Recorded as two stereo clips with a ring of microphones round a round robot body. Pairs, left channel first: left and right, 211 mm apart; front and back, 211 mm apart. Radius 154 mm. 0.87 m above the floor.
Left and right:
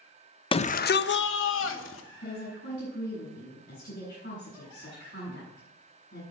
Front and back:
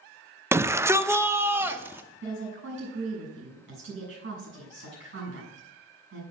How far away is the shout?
About 0.7 m.